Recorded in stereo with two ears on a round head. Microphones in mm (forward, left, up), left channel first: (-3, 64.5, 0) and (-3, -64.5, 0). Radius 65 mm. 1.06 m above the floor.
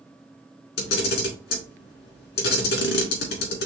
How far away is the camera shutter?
About 1.7 m.